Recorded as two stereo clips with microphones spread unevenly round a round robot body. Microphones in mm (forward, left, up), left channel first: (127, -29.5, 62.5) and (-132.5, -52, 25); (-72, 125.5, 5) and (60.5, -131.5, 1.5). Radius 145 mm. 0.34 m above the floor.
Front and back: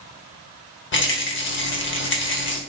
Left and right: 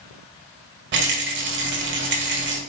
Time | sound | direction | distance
0.9 | a rattle | 30° right | 1.6 m